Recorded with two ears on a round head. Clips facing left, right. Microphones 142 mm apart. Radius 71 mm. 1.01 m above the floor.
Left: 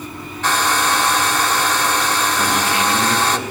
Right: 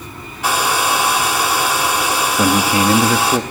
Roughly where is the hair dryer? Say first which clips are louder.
Right 1 dB; centre.